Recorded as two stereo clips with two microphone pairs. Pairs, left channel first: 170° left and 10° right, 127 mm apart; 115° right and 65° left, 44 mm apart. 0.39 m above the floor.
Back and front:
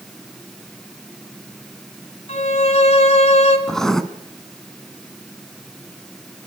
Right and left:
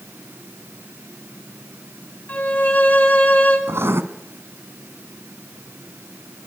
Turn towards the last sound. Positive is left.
turn(degrees=85)